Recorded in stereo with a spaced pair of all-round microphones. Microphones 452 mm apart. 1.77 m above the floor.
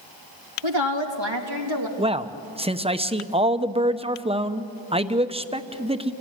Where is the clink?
No clink in this recording.